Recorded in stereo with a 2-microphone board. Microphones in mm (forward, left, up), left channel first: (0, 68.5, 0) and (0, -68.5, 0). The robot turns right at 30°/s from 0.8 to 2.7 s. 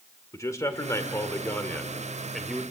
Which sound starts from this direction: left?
A man speaking, at 0.3 s.